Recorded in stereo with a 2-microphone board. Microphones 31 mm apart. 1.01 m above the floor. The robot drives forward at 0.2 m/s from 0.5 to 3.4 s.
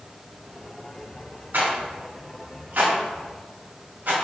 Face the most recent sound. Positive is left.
turn(degrees=-65)  # may be behind; listen again after turning